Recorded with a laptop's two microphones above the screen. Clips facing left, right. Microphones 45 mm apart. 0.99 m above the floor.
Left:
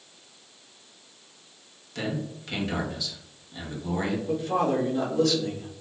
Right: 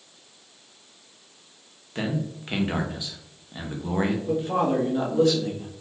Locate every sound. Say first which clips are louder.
1.9 s a man speaking: right 3 dB; 25° right (ahead or behind), 0.9 m
4.3 s a man speaking: left 1 dB; 20° right (ahead or behind), 1.5 m